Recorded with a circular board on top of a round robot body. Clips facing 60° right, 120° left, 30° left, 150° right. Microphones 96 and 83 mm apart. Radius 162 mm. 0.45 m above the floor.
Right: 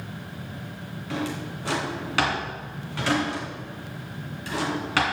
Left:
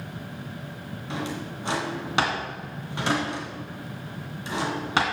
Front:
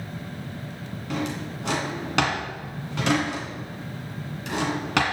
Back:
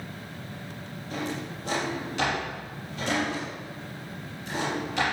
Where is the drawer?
50° left, 2 m.